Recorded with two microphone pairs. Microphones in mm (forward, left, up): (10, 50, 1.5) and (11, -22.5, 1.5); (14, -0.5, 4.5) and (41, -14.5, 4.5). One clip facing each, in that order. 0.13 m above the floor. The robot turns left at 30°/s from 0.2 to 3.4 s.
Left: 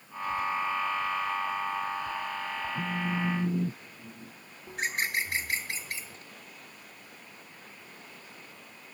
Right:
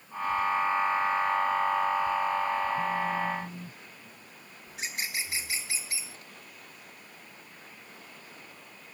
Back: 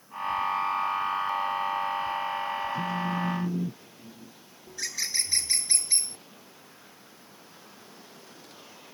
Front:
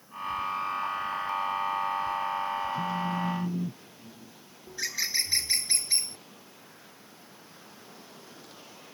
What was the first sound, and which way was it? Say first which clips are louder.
A phone buzzing: right 3 dB, back 1 dB; 140° left.